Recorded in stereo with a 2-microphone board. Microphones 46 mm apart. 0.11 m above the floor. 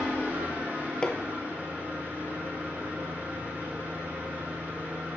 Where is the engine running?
50° right (ahead or behind), 3.5 m.